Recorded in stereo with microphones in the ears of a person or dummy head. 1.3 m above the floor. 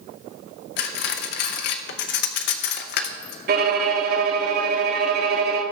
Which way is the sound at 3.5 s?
40° right (ahead or behind).